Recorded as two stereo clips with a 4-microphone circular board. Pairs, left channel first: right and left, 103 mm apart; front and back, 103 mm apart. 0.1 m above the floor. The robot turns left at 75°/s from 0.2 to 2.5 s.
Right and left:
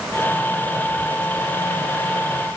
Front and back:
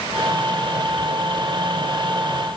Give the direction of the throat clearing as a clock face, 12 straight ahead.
No throat clearing in this recording.